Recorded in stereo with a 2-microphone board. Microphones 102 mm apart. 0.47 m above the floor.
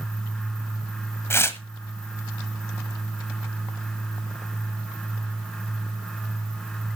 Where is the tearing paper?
25° left (ahead or behind), 1.4 m.